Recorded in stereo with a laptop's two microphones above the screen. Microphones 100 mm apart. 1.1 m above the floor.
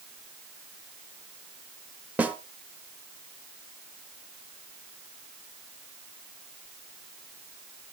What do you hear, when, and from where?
2.2 s a snare drum: 15° right (ahead or behind), 1.1 m